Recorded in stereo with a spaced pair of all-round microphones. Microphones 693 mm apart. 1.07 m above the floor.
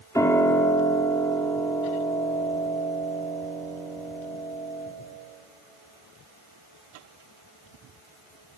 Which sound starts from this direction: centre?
A piano, at 0.1 s.